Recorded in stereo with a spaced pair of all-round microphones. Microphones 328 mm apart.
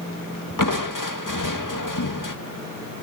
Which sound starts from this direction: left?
Crushing, at 0.6 s.